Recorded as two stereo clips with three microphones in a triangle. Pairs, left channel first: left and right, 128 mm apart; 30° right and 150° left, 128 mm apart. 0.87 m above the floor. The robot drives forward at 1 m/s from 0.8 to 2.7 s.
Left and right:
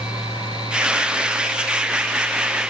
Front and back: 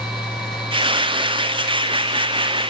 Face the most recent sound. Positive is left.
No sound to turn to.